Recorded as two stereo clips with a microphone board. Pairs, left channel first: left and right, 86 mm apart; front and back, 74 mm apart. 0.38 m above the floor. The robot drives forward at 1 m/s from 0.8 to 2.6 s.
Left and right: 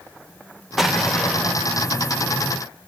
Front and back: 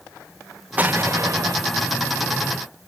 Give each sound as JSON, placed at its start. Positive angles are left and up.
{"t": 0.8, "sound": "an explosion", "azimuth_deg": -170, "distance_m": 0.8}